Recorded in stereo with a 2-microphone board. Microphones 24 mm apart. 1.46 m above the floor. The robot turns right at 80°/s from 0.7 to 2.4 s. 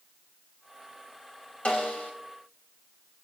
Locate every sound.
1.6 s a snare drum: 70° left, 3 m; by 2.1 s 105° left, 3 m